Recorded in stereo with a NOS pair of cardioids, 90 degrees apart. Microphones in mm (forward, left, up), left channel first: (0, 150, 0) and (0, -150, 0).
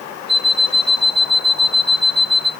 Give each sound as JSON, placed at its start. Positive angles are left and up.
{"t": 0.3, "sound": "an alarm clock", "azimuth_deg": 0, "distance_m": 1.9}